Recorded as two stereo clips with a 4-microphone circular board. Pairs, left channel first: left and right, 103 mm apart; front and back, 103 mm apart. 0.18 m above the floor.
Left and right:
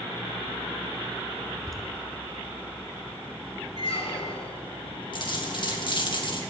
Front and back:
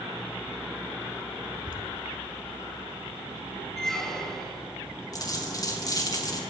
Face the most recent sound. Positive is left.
turn(degrees=50)